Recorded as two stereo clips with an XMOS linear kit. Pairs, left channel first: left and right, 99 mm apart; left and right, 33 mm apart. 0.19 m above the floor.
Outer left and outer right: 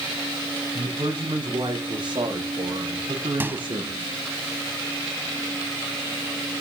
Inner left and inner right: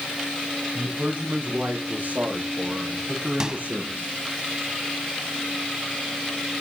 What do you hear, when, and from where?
0.8 s a man speaking: 55° right (ahead or behind), 6.5 m; by 4.1 s 75° right (ahead or behind), 6.5 m
3.4 s a microwave: 20° right (ahead or behind), 0.8 m